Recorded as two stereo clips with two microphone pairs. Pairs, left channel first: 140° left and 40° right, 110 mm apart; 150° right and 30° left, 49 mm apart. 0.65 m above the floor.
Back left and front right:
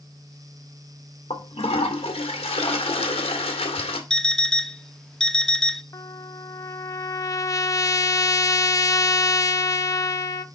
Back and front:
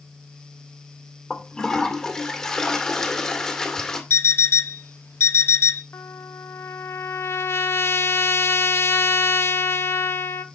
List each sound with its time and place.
1.3 s a toilet flushing: 135° left, 2 m
4.1 s an alarm clock: 140° right, 0.6 m
5.9 s a trumpet: 165° right, 0.6 m